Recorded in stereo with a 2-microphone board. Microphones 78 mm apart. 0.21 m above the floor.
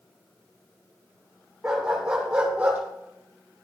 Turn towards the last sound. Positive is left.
turn(degrees=-20)  # may be behind; listen again after turning